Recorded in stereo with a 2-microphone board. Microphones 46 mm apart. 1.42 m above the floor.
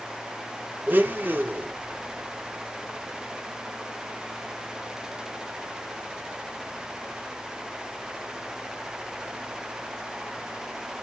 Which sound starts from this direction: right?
A blender, at 0.9 s.